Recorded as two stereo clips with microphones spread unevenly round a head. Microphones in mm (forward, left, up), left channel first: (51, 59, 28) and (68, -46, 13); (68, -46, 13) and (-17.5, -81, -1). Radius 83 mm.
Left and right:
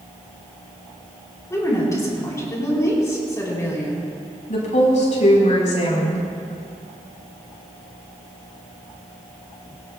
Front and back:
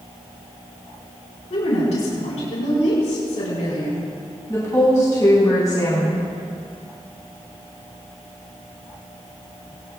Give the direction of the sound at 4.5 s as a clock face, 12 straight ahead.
9 o'clock.